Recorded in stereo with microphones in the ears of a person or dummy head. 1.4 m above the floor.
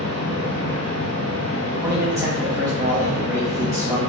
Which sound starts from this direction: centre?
A machine running, at 0.0 s.